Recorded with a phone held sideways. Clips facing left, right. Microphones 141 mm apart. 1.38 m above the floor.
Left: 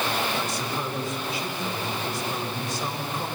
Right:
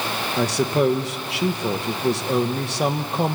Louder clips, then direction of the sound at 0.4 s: Right 10 dB; 75° right (ahead or behind).